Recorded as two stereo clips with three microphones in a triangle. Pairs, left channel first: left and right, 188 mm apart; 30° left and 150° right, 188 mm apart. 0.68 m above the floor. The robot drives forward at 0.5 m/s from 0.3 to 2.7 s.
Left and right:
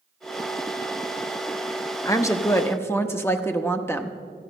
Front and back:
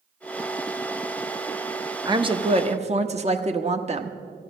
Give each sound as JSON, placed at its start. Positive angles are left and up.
{"t": 2.0, "sound": "a woman speaking", "azimuth_deg": 155, "distance_m": 0.7}